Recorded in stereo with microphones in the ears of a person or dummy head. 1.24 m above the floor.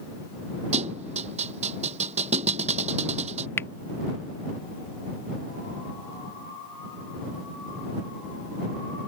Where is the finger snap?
15° left (ahead or behind).